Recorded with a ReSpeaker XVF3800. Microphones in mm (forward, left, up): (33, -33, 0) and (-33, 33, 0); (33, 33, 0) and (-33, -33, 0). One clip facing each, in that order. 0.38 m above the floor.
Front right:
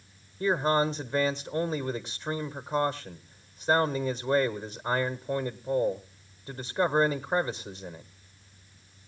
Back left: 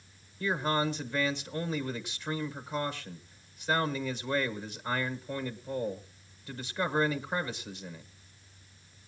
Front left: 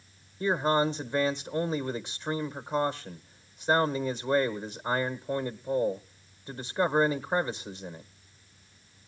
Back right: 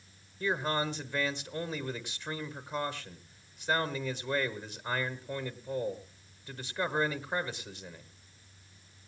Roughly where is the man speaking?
Ahead.